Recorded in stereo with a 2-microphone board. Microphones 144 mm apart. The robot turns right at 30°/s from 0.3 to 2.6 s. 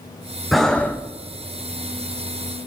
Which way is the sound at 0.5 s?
Centre (ahead or behind).